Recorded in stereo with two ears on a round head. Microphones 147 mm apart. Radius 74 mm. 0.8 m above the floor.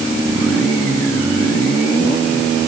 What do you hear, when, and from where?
Only background noise.